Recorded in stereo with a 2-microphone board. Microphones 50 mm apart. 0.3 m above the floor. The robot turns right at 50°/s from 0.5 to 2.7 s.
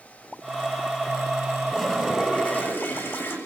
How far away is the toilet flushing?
About 7 m.